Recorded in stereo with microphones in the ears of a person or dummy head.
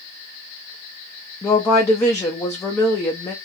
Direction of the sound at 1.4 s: 15° left (ahead or behind).